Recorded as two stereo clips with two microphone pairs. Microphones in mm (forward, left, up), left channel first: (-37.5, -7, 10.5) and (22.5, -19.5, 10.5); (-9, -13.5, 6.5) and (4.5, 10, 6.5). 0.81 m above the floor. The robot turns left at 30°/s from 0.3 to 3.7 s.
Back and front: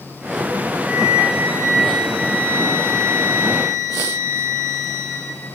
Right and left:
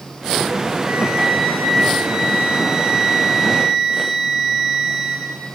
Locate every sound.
0.8 s a flute: 60° left, 6.5 m; by 5.3 s 25° right, 6.5 m